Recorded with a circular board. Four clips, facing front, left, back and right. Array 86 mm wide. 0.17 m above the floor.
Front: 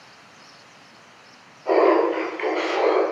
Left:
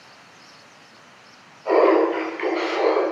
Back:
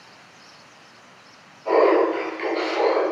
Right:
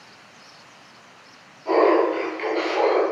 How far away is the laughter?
About 1.4 m.